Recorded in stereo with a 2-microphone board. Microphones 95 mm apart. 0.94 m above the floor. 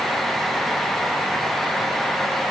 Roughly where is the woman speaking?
No woman speaking in this recording.